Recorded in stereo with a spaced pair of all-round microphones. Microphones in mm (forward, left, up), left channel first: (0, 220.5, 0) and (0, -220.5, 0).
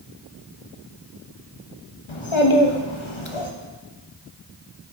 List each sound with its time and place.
2.1 s a child speaking: 80° left, 1.1 m